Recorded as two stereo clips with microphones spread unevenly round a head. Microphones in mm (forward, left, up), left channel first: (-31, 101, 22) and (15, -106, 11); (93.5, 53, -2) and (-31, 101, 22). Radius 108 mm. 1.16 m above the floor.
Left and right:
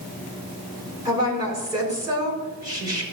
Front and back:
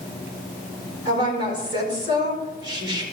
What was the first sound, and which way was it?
A woman speaking, 150° right.